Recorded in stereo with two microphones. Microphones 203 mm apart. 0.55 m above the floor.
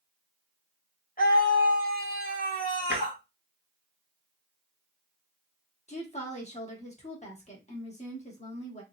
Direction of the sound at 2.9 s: 55° left (ahead or behind).